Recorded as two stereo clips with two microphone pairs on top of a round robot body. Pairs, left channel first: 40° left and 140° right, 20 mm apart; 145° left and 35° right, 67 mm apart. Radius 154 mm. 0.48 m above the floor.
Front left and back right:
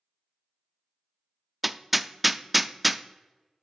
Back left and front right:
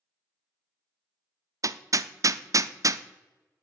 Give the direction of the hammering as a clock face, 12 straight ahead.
2 o'clock.